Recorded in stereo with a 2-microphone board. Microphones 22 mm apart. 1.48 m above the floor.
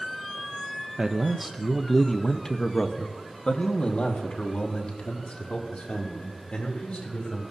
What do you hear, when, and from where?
1.0 s a man speaking: 25° right (ahead or behind), 0.8 m; by 7.4 s 70° left (ahead or behind), 4 m